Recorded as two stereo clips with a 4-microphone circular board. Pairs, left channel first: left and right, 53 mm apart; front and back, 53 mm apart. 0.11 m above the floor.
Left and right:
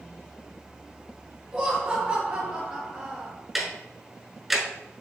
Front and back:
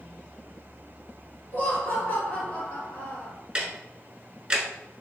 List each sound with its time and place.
1.5 s laughter: 40° right, 2 m
3.5 s ticking: 165° right, 1.0 m